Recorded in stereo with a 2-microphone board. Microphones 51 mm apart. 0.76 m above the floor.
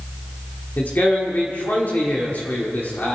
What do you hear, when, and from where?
0.8 s a man speaking: 40° left (ahead or behind), 1.7 m